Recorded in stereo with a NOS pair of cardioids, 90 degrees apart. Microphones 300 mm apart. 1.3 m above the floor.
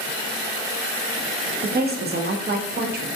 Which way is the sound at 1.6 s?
35° right.